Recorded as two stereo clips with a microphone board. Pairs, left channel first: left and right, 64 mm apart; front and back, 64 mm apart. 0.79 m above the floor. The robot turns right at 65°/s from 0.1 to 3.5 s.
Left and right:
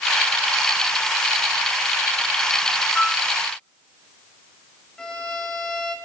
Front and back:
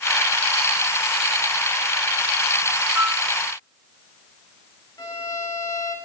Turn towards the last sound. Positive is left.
turn(degrees=15)